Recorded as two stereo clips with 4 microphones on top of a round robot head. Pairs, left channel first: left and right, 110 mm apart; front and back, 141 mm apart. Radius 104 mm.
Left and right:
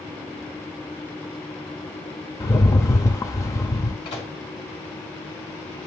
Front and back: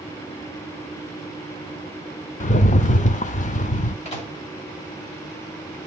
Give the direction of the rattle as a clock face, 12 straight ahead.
11 o'clock.